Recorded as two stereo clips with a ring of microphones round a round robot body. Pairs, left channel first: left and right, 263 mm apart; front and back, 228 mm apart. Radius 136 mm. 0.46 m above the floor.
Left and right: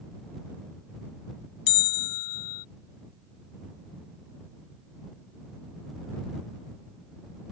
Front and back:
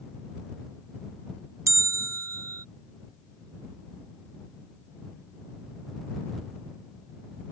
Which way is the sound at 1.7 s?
105° left.